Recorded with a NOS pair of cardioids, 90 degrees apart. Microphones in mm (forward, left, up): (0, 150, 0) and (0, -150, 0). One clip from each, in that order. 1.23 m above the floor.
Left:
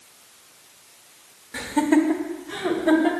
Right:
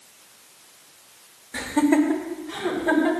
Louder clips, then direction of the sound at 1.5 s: Even; straight ahead.